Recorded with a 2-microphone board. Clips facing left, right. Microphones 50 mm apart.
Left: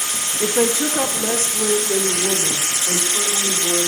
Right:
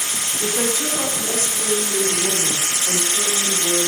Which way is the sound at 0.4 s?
30° left (ahead or behind).